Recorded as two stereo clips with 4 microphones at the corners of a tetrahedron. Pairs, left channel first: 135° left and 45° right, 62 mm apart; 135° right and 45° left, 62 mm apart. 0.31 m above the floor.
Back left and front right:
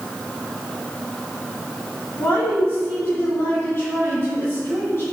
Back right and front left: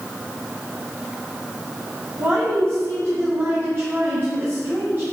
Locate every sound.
2.2 s a woman speaking: 95° left, 2.5 m